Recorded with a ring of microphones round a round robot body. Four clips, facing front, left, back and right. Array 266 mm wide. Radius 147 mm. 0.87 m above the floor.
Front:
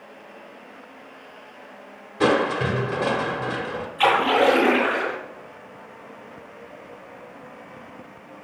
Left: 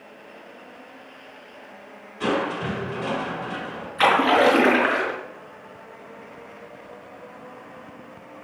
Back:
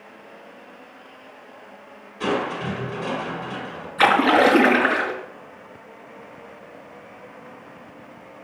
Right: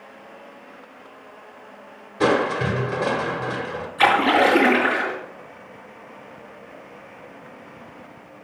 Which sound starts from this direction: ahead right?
Crushing, at 2.2 s.